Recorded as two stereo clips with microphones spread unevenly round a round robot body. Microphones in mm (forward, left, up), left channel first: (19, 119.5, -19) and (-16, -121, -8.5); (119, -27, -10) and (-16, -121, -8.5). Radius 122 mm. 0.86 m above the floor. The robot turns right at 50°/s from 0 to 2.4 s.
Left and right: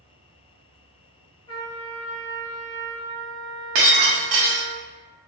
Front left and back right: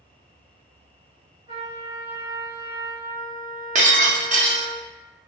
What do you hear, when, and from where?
1.5 s a trumpet: 145° left, 0.9 m; by 4.8 s 165° right, 0.9 m
3.8 s breaking glass: 100° right, 1.0 m